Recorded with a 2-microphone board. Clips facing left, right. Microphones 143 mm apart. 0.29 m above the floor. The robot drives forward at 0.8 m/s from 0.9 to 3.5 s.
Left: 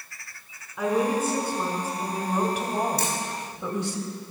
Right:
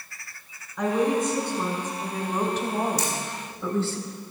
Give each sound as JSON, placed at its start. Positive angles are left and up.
{"t": 0.8, "sound": "a woman speaking", "side_deg": 5, "distance_m": 3.0}
{"t": 3.0, "sound": "a camera shutter", "side_deg": 55, "distance_m": 2.5}